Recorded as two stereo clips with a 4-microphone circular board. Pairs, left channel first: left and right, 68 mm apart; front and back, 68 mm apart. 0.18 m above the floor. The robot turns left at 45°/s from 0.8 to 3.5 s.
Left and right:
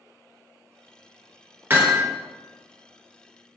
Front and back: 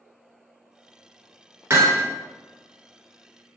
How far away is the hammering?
About 1.0 m.